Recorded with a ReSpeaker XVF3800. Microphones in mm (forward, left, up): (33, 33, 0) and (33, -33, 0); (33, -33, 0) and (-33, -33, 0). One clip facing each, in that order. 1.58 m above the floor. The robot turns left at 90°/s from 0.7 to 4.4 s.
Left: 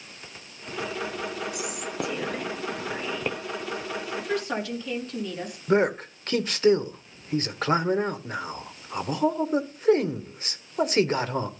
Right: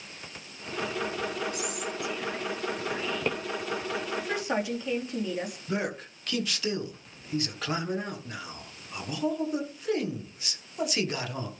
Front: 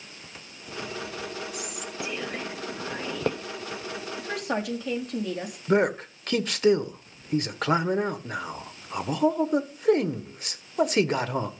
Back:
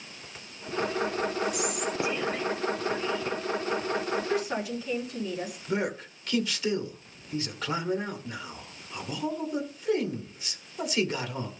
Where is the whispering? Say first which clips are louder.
Left 1 dB, back 6 dB; 160° left, 0.8 m; by 3.4 s 5° right, 0.8 m.